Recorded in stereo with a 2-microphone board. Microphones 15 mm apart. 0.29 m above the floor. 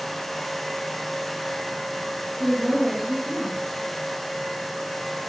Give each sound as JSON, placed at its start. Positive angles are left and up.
{"t": 2.4, "sound": "a woman speaking", "side_deg": -15, "distance_m": 6.5}